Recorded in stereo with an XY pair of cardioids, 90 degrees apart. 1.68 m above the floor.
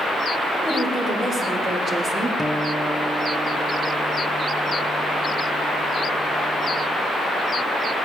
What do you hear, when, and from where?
0.6 s a woman speaking: 50° right, 5.5 m
2.4 s a guitar: 5° left, 0.7 m